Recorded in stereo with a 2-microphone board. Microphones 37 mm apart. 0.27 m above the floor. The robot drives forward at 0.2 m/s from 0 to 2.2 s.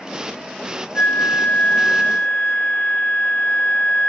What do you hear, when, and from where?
0.9 s a flute: 45° left (ahead or behind), 0.6 m; by 4.1 s 40° left (ahead or behind), 0.6 m